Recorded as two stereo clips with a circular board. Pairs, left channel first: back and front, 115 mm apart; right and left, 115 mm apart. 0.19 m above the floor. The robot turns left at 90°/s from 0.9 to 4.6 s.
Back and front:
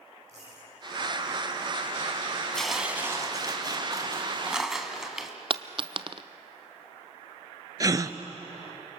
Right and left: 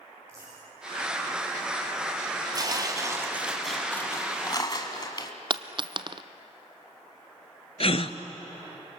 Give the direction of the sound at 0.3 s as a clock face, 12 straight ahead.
11 o'clock.